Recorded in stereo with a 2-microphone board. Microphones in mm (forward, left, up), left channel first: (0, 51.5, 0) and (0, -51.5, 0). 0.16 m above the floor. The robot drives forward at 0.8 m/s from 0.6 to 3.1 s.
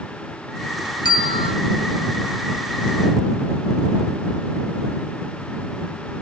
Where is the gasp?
No gasp in this recording.